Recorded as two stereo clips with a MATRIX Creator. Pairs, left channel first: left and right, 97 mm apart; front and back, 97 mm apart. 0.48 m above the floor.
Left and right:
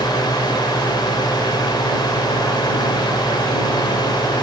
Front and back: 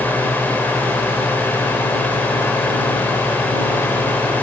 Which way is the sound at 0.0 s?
65° left.